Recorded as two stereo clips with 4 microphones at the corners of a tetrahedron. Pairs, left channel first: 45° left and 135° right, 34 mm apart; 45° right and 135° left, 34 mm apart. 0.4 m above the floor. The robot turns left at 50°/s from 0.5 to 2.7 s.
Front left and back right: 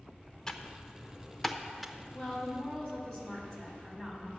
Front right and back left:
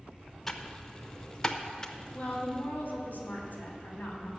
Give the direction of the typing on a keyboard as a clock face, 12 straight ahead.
11 o'clock.